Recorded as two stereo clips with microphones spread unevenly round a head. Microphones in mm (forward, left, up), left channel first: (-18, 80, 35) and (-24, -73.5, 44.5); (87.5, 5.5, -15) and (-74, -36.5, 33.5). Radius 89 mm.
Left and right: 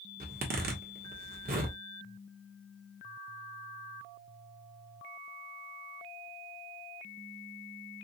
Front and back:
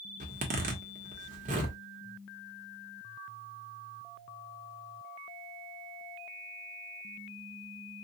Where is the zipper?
120° right, 1.1 m.